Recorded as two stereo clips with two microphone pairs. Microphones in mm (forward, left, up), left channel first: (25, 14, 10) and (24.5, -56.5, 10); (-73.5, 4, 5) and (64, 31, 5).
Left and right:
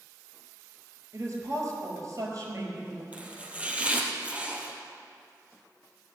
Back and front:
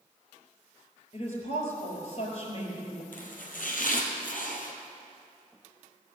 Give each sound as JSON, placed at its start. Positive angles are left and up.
{"t": 1.1, "sound": "a woman speaking", "azimuth_deg": -135, "distance_m": 5.0}
{"t": 3.1, "sound": "chopping", "azimuth_deg": -160, "distance_m": 2.0}